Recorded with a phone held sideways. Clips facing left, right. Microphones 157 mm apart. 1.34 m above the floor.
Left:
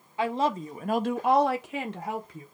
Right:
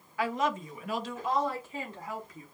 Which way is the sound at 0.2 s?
25° left (ahead or behind).